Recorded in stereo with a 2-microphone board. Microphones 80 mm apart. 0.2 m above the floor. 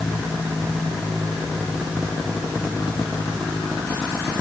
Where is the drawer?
I don't hear a drawer.